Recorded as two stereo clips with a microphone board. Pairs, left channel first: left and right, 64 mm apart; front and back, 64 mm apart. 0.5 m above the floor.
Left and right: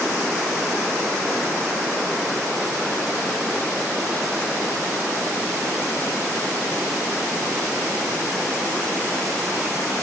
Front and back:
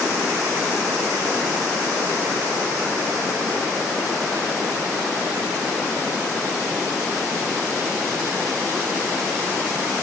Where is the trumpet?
No trumpet in this recording.